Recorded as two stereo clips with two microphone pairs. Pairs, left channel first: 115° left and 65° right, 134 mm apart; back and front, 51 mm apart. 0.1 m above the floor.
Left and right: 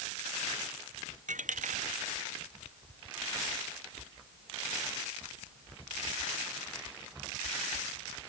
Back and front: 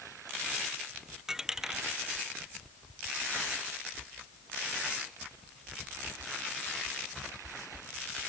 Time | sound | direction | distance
1.3 | a dropped coin | 80° right | ?